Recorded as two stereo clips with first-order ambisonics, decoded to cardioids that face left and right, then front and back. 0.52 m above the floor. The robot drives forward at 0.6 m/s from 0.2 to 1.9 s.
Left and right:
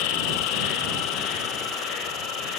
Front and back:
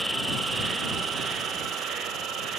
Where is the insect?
95° left, 1.4 m; by 2.6 s 130° left, 1.8 m.